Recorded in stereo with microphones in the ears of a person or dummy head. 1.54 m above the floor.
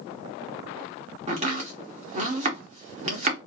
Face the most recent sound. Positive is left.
turn(degrees=-40)  # may be behind; listen again after turning